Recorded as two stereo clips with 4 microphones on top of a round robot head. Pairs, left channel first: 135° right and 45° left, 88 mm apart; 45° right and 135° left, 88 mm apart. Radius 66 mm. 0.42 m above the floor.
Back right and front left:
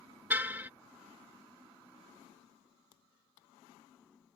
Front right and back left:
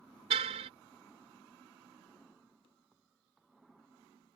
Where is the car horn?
115° left.